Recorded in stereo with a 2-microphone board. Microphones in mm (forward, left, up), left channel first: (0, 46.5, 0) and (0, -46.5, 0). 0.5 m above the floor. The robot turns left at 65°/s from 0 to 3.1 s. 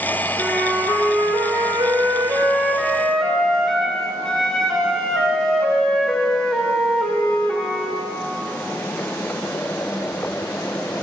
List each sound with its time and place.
0.4 s a flute: 10° right, 2.0 m; by 8.0 s 175° left, 2.0 m